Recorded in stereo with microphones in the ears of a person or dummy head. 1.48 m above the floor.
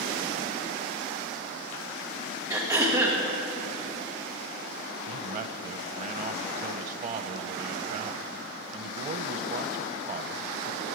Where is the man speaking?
40° right (ahead or behind), 0.7 m.